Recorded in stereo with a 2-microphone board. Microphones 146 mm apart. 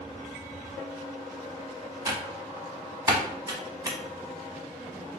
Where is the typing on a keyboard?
25° right (ahead or behind), 1.1 m.